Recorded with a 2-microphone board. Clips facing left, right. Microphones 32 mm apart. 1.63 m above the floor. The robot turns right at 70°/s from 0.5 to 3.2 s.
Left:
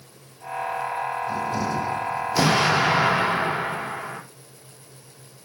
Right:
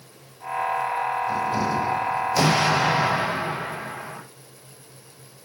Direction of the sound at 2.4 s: Straight ahead.